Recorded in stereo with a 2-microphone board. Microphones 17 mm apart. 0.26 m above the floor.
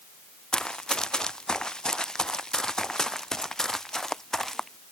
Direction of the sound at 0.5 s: 65° left (ahead or behind).